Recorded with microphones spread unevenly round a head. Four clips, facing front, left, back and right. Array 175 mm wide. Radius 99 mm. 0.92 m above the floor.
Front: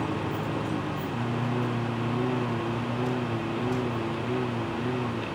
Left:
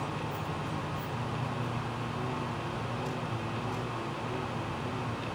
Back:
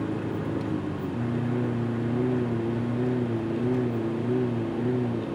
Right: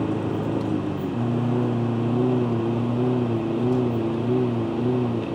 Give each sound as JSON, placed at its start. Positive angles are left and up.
{"t": 0.0, "sound": "a lawn mower", "azimuth_deg": -105}